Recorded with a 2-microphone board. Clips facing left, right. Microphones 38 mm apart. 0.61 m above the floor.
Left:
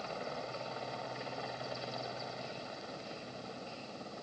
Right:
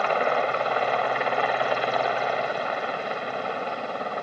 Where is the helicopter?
60° right (ahead or behind).